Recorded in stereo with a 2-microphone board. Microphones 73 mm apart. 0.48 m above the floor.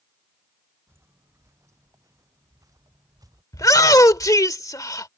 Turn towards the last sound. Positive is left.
turn(degrees=50)  # may be behind; listen again after turning